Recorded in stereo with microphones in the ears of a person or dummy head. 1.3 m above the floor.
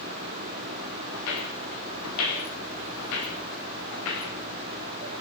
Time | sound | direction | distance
1.1 | footsteps | 80° left | 9 m